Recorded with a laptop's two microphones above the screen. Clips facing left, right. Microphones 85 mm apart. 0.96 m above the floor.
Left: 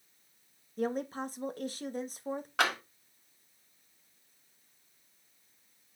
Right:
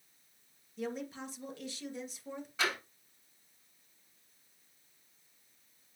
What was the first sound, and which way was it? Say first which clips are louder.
A woman speaking: left 6 dB; 45° left (ahead or behind).